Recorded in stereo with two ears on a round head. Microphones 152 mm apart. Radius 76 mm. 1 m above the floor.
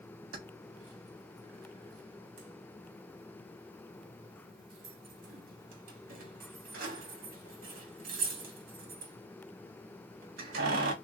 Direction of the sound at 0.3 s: 55° right (ahead or behind).